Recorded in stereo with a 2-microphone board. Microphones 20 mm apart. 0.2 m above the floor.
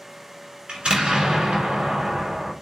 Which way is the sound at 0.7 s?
60° right (ahead or behind).